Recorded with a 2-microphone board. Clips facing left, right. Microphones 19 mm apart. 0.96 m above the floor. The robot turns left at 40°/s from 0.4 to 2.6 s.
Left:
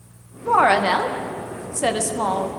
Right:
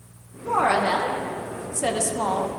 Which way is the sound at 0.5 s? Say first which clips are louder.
Left 4 dB; 105° left.